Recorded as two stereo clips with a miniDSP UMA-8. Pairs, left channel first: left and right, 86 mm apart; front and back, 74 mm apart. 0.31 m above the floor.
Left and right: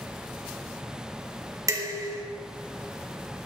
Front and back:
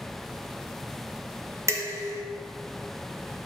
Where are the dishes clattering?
135° right, 1.6 m.